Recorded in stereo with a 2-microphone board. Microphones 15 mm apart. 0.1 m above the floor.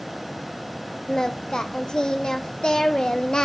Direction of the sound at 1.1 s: 60° left (ahead or behind).